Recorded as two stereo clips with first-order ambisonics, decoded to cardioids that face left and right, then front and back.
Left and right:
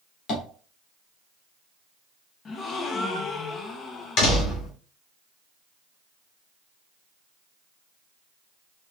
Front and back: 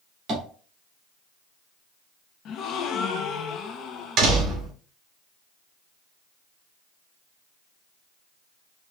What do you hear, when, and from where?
0.3 s tapping: 125° left, 1.8 m
2.5 s a gasp: 35° left, 0.5 m
4.2 s a door slam: 130° left, 1.4 m